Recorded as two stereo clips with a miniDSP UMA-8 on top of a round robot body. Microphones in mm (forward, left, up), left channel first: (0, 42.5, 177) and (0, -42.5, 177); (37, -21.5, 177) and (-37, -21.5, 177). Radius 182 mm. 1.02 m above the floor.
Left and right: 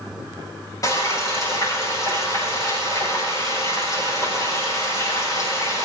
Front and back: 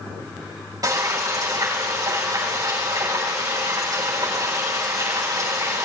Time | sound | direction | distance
0.8 | frying | 140° left | 7 m